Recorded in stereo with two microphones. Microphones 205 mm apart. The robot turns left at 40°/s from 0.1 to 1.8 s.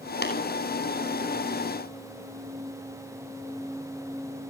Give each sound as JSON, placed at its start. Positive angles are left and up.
{"t": 0.2, "sound": "tapping", "side_deg": 55, "distance_m": 5.5}